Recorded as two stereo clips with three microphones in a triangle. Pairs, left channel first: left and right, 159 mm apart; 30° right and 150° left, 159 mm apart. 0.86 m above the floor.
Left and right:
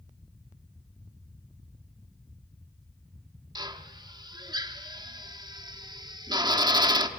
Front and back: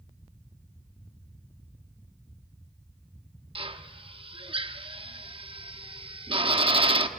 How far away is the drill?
About 0.9 m.